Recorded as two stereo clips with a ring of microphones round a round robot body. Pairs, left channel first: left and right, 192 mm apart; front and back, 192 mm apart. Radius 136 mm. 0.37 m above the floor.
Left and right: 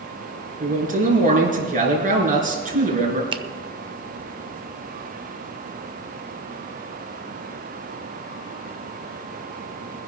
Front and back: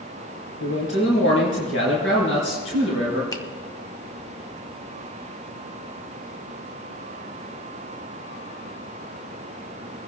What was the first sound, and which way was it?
A man speaking, 45° right.